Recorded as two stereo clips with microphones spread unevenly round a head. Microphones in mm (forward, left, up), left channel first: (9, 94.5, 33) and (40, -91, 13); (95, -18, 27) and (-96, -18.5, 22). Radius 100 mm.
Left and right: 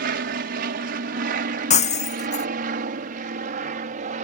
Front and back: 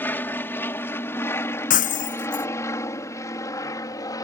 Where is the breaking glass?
50° left.